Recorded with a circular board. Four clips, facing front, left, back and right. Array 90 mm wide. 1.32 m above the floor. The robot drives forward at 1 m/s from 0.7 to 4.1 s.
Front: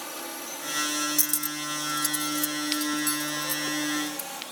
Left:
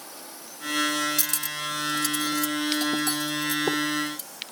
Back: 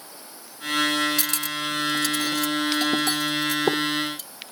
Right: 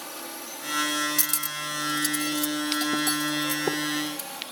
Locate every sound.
0.0 s a drone: 30° right; by 4.5 s 40° right
1.2 s cutlery clinking: 175° left; by 4.3 s straight behind